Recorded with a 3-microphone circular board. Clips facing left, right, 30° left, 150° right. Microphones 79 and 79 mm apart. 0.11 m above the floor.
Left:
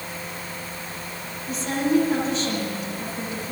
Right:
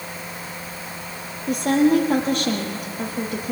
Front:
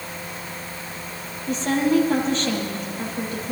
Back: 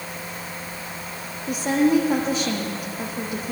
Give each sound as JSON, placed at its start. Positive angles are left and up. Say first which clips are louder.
{"t": 1.5, "sound": "a woman speaking", "louder": "right 5 dB, back 1 dB", "azimuth_deg": -70, "distance_m": 4.0}